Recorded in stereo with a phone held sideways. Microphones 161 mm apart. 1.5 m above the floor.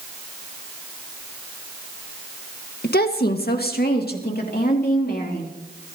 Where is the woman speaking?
75° left (ahead or behind), 1.6 m.